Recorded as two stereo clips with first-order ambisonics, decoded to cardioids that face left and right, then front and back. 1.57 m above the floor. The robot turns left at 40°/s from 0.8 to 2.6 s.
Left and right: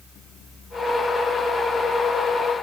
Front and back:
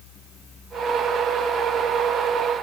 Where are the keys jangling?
I don't hear keys jangling.